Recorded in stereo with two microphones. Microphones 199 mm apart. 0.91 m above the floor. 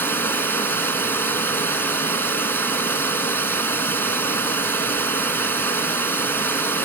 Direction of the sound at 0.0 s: 10° left (ahead or behind).